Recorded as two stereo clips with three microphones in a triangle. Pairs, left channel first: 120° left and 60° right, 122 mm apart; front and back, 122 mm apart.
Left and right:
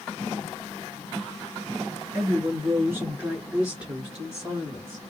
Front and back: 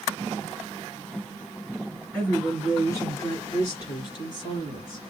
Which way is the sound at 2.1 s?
65° right.